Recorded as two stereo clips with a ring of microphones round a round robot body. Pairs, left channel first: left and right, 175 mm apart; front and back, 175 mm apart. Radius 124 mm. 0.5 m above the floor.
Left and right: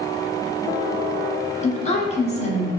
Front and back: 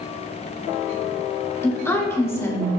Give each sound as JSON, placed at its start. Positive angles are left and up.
{"t": 1.6, "sound": "a woman speaking", "azimuth_deg": 70, "distance_m": 1.1}